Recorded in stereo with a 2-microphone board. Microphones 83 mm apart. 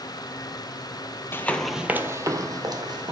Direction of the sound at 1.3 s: 30° left (ahead or behind).